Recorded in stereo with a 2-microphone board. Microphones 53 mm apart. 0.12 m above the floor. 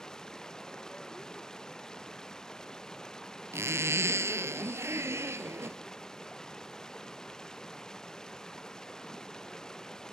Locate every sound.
0.0 s running water: 10° left (ahead or behind)
3.5 s a zipper: 60° right (ahead or behind)